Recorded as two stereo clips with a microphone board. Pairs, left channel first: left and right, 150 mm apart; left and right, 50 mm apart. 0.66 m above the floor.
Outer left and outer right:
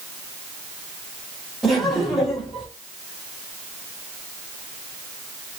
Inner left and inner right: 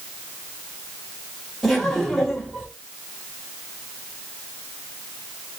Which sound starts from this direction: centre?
Laughter, at 1.6 s.